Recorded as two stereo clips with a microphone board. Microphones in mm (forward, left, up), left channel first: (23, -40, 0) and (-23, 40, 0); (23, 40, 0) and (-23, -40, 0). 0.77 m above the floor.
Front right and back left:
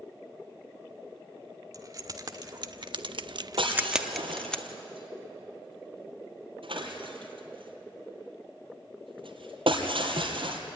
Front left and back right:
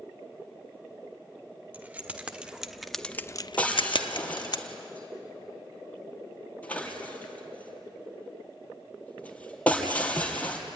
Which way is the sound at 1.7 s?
170° left.